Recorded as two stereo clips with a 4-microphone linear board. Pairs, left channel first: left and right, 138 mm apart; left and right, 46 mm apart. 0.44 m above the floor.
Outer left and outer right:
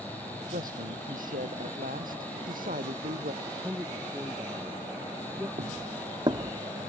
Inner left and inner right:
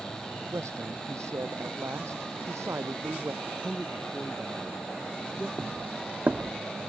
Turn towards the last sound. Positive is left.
turn(degrees=-25)  # may be behind; listen again after turning